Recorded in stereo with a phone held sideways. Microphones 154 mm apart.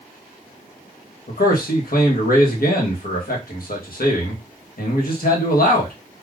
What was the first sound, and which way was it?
A man speaking, 70° left (ahead or behind).